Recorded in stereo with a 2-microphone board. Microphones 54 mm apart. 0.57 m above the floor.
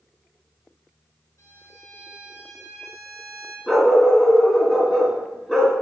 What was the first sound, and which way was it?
A violin, 85° left.